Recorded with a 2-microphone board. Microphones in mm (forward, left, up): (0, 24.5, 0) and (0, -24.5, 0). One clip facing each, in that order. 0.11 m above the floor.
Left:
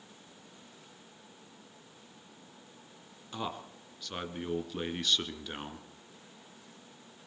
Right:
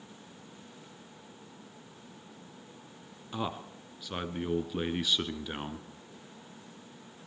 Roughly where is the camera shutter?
No camera shutter in this recording.